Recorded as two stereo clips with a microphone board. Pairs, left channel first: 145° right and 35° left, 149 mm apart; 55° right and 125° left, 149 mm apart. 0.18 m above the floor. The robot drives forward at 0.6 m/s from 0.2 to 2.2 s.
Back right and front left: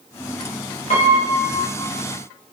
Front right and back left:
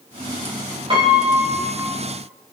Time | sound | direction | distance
0.9 | a piano | straight behind | 5 m